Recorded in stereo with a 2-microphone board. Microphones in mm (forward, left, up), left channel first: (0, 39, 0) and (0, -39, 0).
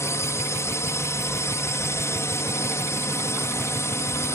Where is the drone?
35° left (ahead or behind).